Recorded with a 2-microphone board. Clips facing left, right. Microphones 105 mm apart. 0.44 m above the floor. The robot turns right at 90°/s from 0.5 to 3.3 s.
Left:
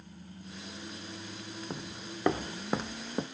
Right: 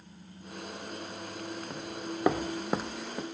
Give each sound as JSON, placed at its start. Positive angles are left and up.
{"t": 1.7, "sound": "footsteps", "side_deg": 10, "distance_m": 0.7}